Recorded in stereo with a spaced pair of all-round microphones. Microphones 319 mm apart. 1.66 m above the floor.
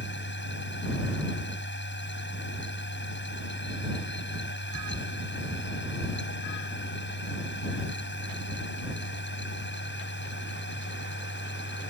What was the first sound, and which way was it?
A machine running, 35° left (ahead or behind).